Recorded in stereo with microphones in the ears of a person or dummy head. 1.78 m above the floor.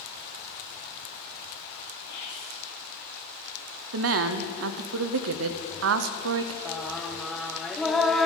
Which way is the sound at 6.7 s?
Centre (ahead or behind).